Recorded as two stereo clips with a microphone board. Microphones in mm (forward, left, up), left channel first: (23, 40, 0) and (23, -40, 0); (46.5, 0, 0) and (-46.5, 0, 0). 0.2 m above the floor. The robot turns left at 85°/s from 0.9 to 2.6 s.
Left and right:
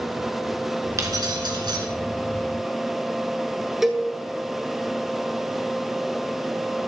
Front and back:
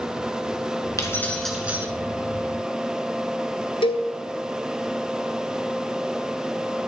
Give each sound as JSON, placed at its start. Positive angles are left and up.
{"t": 1.0, "sound": "keys jangling", "azimuth_deg": -45, "distance_m": 2.0}
{"t": 3.8, "sound": "a cowbell", "azimuth_deg": -5, "distance_m": 1.4}